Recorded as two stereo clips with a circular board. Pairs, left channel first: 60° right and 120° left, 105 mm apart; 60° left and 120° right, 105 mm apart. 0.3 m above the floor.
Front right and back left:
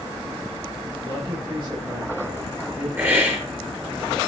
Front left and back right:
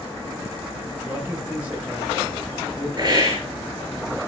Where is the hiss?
170° right, 6.5 m.